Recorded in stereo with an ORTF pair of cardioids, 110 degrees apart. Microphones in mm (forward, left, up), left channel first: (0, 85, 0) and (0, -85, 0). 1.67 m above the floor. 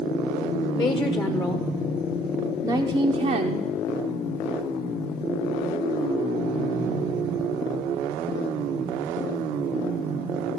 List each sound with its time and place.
0.7 s a woman speaking: 30° left, 1.5 m; by 3.7 s 60° right, 0.9 m